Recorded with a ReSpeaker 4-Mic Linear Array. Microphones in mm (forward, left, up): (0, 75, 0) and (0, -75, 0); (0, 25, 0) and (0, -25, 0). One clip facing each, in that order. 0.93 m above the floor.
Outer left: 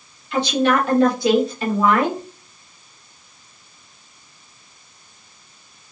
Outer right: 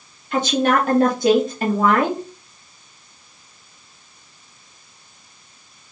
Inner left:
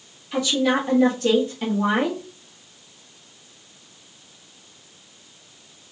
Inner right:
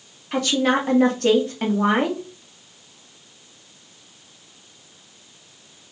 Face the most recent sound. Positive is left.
turn(degrees=-50)  # may be behind; listen again after turning